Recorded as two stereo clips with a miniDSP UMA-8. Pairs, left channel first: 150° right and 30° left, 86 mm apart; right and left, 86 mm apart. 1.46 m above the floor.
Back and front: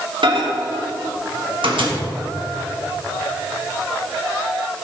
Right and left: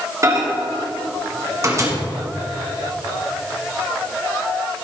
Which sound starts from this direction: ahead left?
A microwave, at 0.2 s.